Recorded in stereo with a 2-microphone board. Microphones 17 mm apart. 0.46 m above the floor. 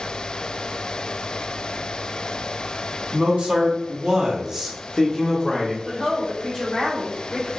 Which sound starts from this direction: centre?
A woman speaking, at 5.8 s.